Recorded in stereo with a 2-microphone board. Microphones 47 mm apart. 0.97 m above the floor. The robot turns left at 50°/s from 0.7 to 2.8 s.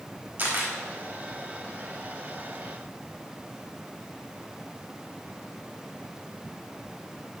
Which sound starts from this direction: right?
A camera shutter, at 0.4 s.